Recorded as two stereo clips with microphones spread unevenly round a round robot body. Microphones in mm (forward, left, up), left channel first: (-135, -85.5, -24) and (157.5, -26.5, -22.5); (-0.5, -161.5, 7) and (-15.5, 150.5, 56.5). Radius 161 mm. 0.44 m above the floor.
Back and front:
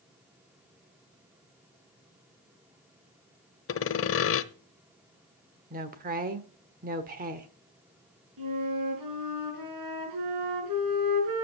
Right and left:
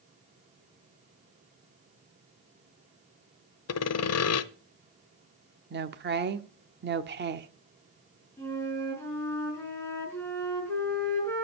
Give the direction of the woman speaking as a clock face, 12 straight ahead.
10 o'clock.